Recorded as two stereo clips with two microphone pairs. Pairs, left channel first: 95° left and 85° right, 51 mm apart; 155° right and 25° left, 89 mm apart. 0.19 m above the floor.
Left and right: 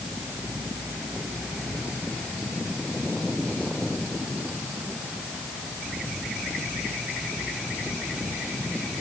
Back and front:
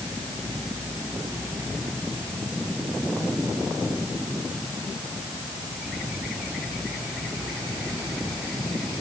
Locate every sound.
Only background noise.